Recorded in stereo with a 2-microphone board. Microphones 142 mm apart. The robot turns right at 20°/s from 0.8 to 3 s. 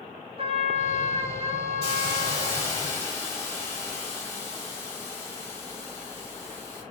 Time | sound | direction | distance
0.4 | a trumpet | 85° right | 0.6 m
1.8 | a hiss | 20° left (ahead or behind) | 1.1 m